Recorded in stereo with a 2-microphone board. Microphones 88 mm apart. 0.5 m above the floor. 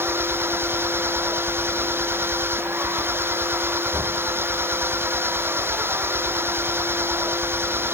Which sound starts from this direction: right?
An engine running, at 0.0 s.